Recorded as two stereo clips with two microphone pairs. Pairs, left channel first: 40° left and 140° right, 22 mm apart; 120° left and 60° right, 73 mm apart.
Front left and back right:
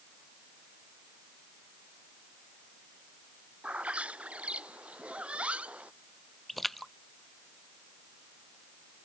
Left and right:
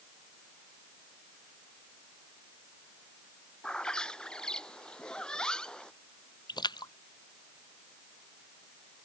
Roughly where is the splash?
Behind left.